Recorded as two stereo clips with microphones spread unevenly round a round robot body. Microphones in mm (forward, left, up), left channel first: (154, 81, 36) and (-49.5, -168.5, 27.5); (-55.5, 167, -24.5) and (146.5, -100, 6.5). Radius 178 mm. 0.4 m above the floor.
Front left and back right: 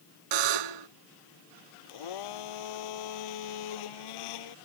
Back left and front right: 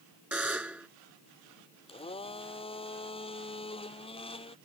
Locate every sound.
0.3 s a buzzer: 135° right
1.9 s a blender: 50° left